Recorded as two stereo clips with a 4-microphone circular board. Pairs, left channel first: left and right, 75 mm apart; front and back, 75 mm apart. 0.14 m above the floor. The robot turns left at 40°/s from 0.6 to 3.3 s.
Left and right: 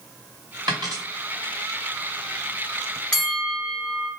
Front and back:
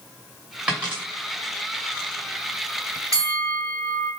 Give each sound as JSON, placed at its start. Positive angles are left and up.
{"t": 0.7, "sound": "a dropped coin", "azimuth_deg": -105, "distance_m": 2.0}
{"t": 3.1, "sound": "a bell", "azimuth_deg": 160, "distance_m": 2.5}